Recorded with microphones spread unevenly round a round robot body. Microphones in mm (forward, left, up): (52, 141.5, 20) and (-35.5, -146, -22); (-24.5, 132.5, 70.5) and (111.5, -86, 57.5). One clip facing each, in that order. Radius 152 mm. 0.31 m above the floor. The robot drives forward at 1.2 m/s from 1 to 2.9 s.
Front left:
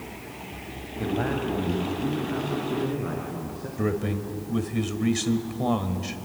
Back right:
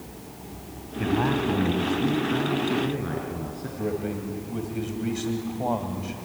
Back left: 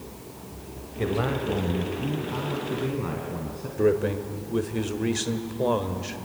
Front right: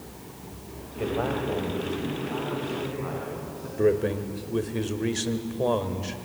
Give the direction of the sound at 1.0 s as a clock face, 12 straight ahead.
6 o'clock.